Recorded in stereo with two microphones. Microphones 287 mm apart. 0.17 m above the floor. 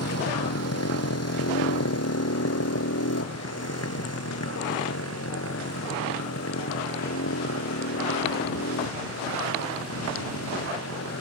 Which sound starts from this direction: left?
A motorcycle, at 0.0 s.